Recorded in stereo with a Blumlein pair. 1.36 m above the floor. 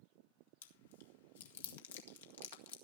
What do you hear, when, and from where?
0.6 s chewing: 60° left, 1.9 m